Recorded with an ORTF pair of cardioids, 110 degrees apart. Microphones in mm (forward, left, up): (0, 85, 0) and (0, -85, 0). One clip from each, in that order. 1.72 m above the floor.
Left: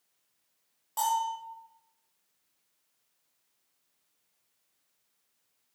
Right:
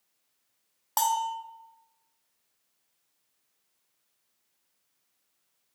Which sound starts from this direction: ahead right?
A bell, at 1.0 s.